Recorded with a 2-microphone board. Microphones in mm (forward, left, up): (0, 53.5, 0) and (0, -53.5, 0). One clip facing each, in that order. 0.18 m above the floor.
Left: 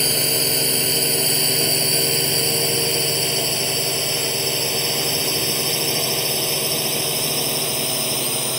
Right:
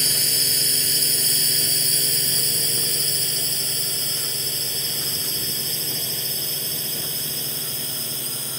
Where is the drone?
55° left (ahead or behind); by 8.6 s 75° left (ahead or behind).